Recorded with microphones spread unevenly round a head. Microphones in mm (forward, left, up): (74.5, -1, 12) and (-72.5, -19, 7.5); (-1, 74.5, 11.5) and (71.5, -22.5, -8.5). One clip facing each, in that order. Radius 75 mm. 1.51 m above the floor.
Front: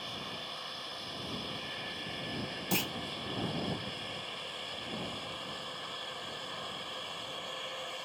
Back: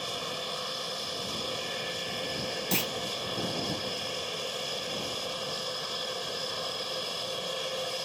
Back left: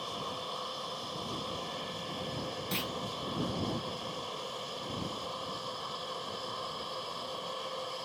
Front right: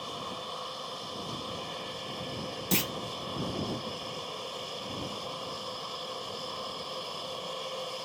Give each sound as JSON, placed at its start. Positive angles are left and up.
{"t": 0.0, "sound": "an aircraft", "azimuth_deg": -145}
{"t": 2.7, "sound": "a clunk", "azimuth_deg": -90}